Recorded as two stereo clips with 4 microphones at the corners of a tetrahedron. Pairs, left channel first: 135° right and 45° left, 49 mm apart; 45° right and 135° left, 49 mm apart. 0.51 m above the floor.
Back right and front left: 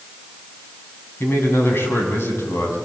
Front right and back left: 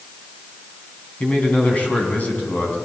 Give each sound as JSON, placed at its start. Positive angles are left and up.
{"t": 1.2, "sound": "a man speaking", "azimuth_deg": -100, "distance_m": 4.5}